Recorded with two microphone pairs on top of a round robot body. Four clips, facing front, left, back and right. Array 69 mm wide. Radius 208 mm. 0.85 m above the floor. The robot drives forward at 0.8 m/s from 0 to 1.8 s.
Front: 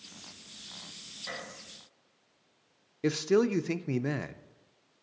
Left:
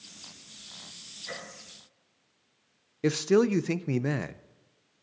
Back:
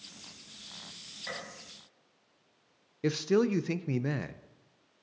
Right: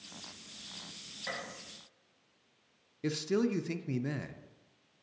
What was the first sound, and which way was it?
A gunshot, 120° right.